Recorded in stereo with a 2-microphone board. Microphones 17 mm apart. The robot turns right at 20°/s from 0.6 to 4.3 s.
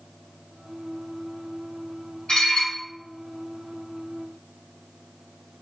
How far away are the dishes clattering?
About 1.7 m.